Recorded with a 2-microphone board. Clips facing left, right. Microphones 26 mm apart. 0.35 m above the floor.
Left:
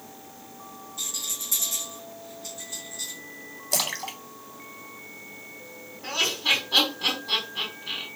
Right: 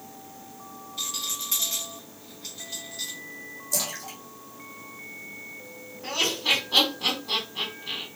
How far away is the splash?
About 0.7 m.